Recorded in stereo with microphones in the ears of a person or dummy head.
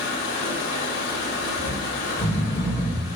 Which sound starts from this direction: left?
Running water, at 0.0 s.